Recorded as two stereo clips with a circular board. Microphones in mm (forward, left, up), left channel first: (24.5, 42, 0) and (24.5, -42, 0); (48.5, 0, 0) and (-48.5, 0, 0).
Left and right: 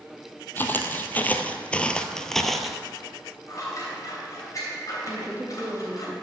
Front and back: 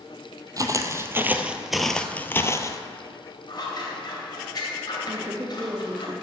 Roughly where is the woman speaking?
Behind right.